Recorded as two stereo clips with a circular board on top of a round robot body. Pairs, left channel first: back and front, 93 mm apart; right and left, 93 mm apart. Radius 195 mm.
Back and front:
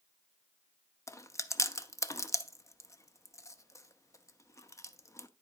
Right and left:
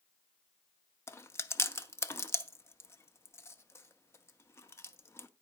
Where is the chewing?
140° right, 0.9 m.